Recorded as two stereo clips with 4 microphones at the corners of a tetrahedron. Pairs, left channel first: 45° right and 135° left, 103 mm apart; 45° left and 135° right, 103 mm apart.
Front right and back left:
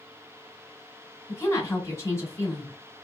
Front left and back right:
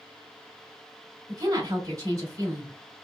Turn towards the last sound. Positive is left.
turn(degrees=-95)